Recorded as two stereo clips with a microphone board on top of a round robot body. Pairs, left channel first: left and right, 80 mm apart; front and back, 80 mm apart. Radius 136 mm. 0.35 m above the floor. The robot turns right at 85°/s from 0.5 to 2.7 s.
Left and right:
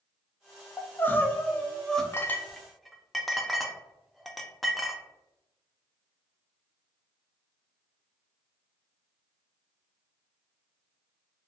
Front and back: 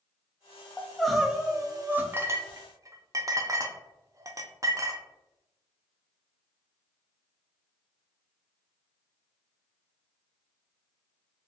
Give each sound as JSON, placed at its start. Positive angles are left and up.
{"t": 0.8, "sound": "crying", "azimuth_deg": 60, "distance_m": 0.6}
{"t": 2.1, "sound": "a clink", "azimuth_deg": 130, "distance_m": 0.5}